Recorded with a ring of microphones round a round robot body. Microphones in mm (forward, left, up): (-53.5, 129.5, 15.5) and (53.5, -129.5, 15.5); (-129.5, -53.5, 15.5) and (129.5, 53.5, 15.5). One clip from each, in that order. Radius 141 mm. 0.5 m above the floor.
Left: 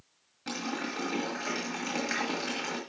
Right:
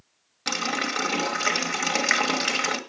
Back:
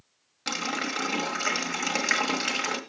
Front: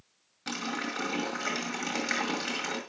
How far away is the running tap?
About 1.6 m.